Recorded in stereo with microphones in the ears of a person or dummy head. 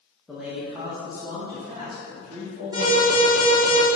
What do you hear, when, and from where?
0.3 s a man speaking: centre (ahead or behind), 1.1 m; by 3.7 s 45° right (ahead or behind), 2.5 m
2.7 s an alarm: 25° right (ahead or behind), 1.9 m